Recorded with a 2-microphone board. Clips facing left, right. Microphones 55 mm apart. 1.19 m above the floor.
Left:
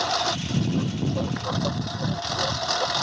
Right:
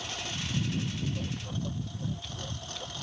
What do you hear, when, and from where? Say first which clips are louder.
0.0 s a lawn mower: left 12 dB; 80° left